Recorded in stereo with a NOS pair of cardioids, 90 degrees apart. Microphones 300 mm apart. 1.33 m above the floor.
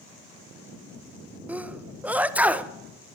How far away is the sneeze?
About 0.9 m.